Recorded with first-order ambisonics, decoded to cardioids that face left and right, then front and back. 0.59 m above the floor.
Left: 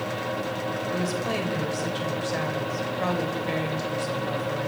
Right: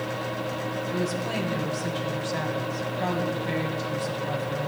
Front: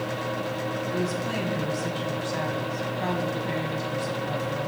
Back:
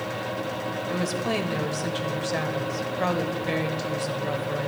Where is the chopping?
No chopping in this recording.